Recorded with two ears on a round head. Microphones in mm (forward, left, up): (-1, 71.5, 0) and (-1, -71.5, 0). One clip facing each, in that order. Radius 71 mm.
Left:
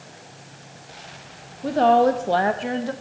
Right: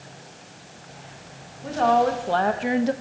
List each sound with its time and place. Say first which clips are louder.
1.6 s a woman speaking: left 3 dB; 45° left (ahead or behind), 0.8 m; by 2.9 s 25° right (ahead or behind), 0.5 m